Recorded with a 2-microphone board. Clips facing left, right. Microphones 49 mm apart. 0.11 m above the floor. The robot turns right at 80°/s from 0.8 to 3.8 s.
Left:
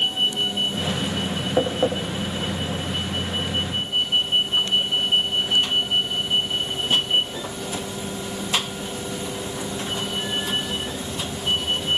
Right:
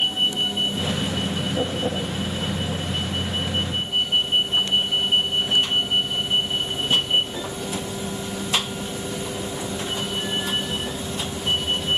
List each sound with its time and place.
1.6 s tapping: 85° left, 9 m; by 1.9 s 65° left (ahead or behind), 9 m